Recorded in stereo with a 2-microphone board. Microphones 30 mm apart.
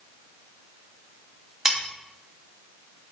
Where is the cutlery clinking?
20° right (ahead or behind), 1.0 m.